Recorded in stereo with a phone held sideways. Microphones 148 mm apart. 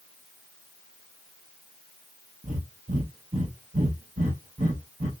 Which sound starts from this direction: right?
Breathing, at 2.4 s.